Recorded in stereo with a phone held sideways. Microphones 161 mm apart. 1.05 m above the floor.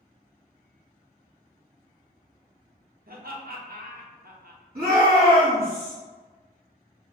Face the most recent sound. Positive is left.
turn(degrees=-65)  # may be behind; listen again after turning